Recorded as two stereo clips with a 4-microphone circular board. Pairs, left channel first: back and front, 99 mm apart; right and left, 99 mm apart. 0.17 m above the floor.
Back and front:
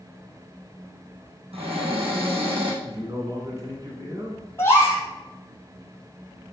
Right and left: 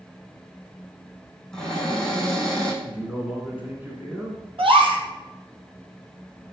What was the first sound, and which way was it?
A cupboard door, 5° right.